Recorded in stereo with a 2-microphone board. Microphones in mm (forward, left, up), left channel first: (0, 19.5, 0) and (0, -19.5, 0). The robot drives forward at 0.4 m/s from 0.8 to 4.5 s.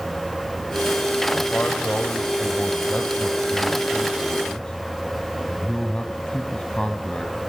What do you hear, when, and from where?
1.5 s a man speaking: 40° left (ahead or behind), 1.4 m; by 7.4 s 25° left (ahead or behind), 2 m